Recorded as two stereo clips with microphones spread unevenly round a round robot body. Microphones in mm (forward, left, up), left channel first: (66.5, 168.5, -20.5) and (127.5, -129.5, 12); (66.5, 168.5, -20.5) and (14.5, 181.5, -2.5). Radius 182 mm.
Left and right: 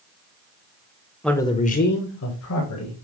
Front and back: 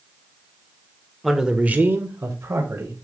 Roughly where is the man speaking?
Ahead left.